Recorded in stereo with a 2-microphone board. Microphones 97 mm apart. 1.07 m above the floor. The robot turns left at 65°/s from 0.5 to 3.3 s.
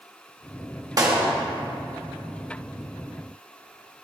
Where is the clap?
40° right (ahead or behind), 1.1 m; by 1.3 s 60° right (ahead or behind), 1.1 m.